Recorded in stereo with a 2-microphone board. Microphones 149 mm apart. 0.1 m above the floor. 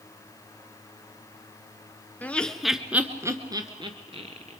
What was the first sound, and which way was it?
Laughter, 10° left (ahead or behind).